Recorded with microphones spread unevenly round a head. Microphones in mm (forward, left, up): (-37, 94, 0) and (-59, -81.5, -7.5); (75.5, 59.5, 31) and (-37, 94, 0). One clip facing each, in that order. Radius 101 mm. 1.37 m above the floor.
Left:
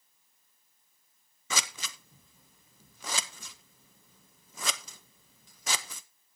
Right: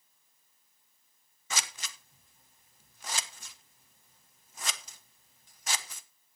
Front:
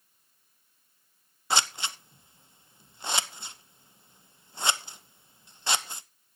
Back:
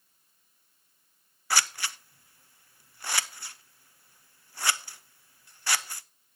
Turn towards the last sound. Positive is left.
turn(degrees=55)